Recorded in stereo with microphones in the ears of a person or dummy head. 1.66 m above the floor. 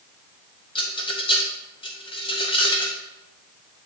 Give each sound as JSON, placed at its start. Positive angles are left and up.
{"t": 0.8, "sound": "a rattle", "side_deg": 20, "distance_m": 0.6}